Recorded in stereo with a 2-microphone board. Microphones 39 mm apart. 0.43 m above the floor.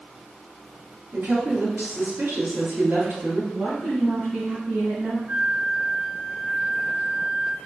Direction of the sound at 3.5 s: 50° right (ahead or behind).